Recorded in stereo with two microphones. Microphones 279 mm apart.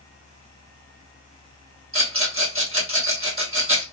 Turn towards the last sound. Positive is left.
turn(degrees=-50)  # may be behind; listen again after turning